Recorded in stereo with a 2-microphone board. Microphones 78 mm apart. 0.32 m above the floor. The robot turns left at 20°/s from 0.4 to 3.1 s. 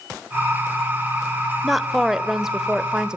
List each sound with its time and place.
1.6 s a woman speaking: centre (ahead or behind), 0.9 m; by 3.2 s 10° right (ahead or behind), 0.9 m